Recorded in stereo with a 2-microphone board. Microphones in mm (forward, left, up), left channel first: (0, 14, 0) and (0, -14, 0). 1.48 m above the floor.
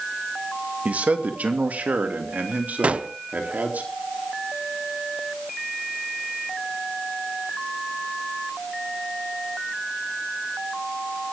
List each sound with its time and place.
0.8 s a man speaking: 60° right (ahead or behind), 1.8 m; by 3.8 s 85° right, 3.5 m
2.8 s a gunshot: 50° right (ahead or behind), 0.6 m